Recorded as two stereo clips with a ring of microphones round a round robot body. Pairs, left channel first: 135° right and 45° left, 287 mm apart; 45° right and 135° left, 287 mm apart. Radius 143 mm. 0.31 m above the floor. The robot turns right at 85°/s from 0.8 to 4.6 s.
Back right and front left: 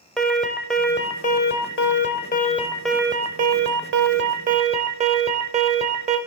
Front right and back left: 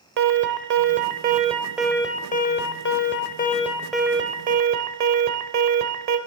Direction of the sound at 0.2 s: 135° left.